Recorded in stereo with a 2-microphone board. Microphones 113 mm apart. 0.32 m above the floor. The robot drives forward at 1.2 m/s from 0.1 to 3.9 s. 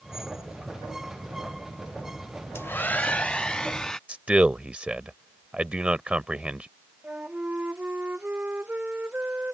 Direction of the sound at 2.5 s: 25° left (ahead or behind).